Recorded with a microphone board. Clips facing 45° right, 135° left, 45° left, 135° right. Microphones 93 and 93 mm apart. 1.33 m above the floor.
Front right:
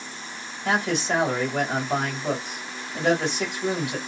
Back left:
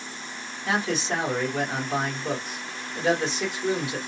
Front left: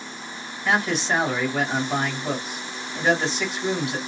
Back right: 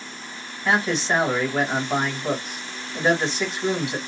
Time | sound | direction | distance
0.7 | a man speaking | 65° right | 1.5 m